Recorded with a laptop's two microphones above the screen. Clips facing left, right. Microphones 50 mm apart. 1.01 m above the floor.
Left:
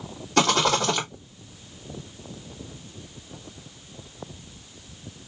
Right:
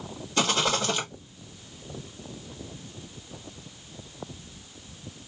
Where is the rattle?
85° left, 2 m.